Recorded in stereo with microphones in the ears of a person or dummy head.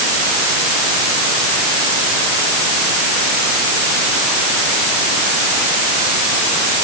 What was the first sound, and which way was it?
Only background noise.